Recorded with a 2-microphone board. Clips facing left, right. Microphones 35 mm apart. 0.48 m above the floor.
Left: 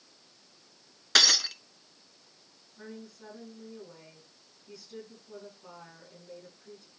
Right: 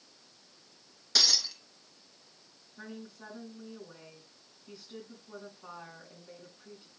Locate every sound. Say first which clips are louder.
1.1 s breaking glass: left 5 dB; 55° left (ahead or behind), 0.7 m
2.8 s a woman speaking: even; 30° right (ahead or behind), 6 m